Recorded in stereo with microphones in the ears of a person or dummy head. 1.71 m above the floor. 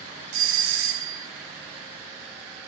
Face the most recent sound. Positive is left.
turn(degrees=-80)